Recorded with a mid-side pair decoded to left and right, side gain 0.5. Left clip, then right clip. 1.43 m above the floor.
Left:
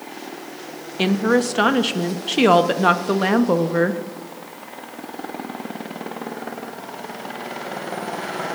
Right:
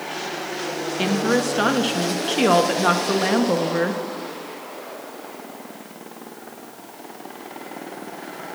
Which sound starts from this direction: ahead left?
A woman speaking, at 1.0 s.